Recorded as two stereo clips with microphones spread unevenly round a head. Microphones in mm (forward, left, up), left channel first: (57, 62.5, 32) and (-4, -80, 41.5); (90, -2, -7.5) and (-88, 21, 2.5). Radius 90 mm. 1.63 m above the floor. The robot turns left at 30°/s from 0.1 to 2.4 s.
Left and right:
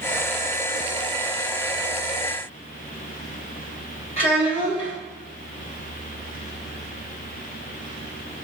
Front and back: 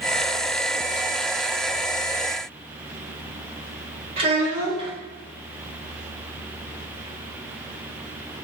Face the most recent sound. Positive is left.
turn(degrees=120)